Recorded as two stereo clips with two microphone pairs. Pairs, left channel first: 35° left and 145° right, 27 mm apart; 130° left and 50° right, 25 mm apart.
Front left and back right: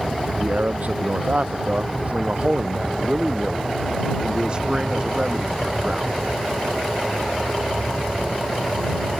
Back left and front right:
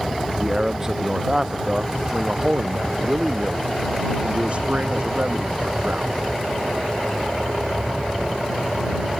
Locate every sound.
0.4 s a man speaking: 125° right; by 6.1 s 85° right